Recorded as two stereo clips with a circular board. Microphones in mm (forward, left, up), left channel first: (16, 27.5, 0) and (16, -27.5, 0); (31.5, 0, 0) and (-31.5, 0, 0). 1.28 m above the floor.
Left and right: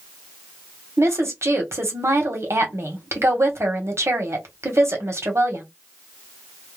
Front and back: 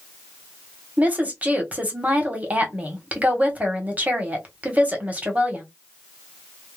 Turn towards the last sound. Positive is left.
turn(degrees=-115)